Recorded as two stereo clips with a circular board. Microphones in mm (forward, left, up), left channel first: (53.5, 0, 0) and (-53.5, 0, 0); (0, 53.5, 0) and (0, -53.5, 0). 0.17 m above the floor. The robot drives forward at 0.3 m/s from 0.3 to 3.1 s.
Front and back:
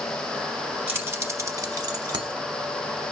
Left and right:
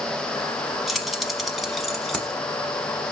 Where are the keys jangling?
Straight behind, 0.9 m.